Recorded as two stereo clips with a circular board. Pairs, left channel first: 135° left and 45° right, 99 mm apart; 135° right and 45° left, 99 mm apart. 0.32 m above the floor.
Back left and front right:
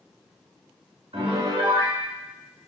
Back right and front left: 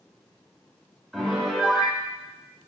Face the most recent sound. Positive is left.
turn(degrees=-45)